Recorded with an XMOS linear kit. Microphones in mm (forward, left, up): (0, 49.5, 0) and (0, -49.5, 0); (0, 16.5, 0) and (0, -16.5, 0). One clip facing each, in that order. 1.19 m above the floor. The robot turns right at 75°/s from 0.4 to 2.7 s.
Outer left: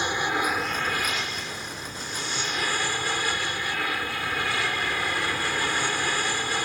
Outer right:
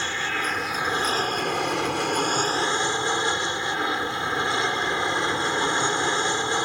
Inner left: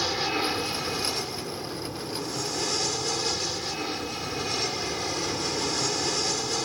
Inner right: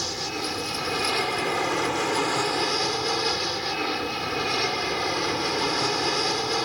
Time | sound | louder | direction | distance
0.0 | an aircraft | outer left 2 dB, inner left 3 dB | 165° left | ?